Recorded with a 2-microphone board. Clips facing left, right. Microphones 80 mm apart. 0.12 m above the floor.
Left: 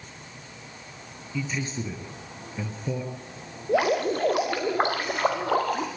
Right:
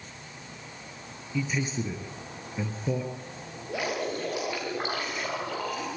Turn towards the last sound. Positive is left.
turn(degrees=55)  # may be behind; listen again after turning